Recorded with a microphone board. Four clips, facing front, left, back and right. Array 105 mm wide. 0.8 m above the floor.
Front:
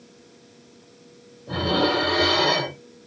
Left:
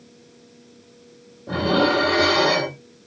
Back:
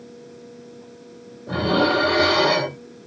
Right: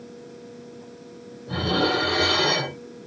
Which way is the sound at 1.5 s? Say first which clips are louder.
Left 4 dB, back 3 dB; 125° left.